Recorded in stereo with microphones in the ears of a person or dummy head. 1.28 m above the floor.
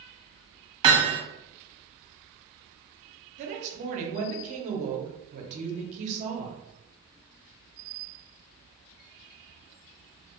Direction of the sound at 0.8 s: 25° right (ahead or behind).